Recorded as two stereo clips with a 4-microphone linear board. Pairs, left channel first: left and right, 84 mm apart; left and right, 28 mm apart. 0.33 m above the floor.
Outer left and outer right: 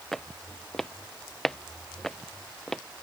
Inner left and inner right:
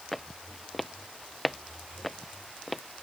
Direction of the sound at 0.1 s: 5° left (ahead or behind).